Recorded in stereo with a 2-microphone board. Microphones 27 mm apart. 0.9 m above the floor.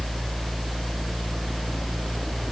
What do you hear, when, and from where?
Only background noise.